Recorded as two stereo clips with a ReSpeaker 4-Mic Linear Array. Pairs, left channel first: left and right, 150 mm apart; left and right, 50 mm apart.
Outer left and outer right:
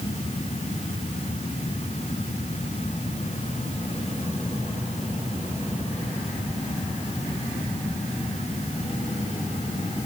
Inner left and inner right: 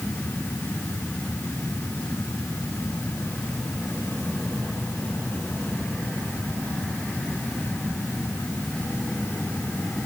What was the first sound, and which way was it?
Only background noise.